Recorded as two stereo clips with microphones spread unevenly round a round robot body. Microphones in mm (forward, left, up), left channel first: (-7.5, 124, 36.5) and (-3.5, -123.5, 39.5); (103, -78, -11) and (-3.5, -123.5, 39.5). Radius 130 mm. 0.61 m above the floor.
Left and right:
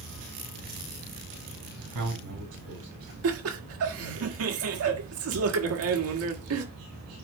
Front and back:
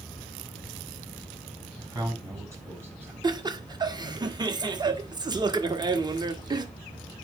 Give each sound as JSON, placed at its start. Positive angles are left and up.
{"t": 1.8, "sound": "a man speaking", "azimuth_deg": -95, "distance_m": 5.0}
{"t": 3.2, "sound": "laughter", "azimuth_deg": -90, "distance_m": 1.6}